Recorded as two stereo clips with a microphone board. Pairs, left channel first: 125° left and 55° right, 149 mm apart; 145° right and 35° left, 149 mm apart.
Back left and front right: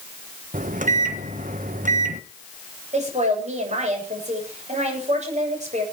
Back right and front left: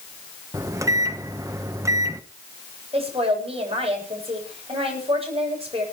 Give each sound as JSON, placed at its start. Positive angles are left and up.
{"t": 0.5, "sound": "a microwave", "azimuth_deg": -35, "distance_m": 1.0}
{"t": 2.9, "sound": "a woman speaking", "azimuth_deg": -15, "distance_m": 9.0}